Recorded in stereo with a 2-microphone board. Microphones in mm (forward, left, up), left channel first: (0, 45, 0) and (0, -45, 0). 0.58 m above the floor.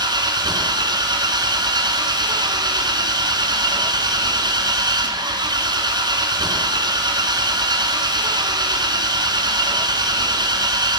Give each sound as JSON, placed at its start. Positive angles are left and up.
{"t": 0.0, "sound": "an engine running", "side_deg": -50, "distance_m": 1.7}